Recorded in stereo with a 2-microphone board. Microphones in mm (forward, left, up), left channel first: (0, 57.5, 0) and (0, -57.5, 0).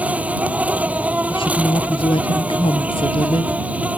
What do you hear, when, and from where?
0.0 s an insect: 15° right (ahead or behind)
1.3 s a woman speaking: 55° left (ahead or behind)